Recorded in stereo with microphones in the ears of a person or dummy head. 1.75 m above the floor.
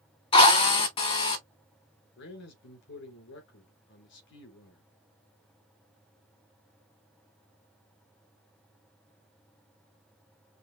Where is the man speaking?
60° left (ahead or behind), 2.5 m.